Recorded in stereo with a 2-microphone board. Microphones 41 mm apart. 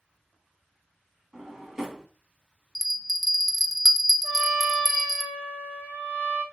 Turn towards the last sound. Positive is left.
turn(degrees=-50)  # may be behind; listen again after turning